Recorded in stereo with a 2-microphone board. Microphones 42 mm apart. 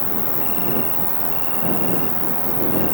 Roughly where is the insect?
Left.